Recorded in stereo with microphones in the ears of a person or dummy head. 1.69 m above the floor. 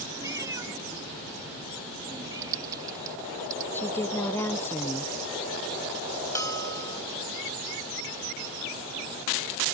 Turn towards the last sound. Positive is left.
turn(degrees=15)  # may be behind; listen again after turning